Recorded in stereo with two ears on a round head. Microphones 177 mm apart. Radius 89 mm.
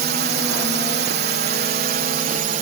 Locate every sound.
0.0 s a drone: 55° right (ahead or behind); by 2.6 s 40° right (ahead or behind)